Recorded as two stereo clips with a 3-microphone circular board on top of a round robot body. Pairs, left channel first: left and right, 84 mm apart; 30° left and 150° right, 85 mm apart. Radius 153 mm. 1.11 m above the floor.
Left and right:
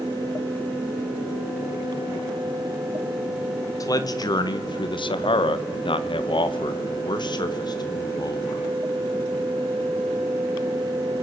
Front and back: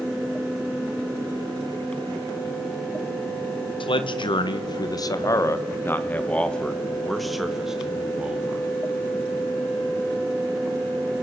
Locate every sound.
3.8 s a man speaking: 40° left, 1.7 m; by 8.7 s 135° left, 3 m